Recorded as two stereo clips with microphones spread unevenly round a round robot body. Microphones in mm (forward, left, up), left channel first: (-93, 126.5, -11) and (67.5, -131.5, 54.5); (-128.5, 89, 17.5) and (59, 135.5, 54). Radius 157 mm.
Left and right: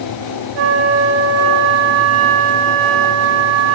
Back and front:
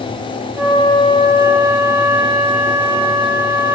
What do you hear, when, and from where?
0.6 s a flute: 75° right, 1.4 m